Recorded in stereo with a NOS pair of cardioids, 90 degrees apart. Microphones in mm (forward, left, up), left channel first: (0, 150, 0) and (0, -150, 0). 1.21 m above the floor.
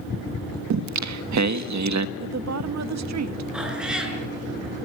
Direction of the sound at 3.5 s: Straight ahead.